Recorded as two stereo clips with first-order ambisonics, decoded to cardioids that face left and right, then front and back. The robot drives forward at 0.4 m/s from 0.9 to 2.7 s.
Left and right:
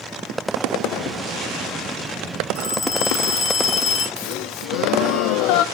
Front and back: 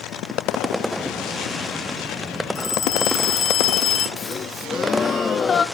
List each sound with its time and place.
2.5 s a phone ringing: 45° left, 5 m
4.2 s a gasp: 70° left, 0.7 m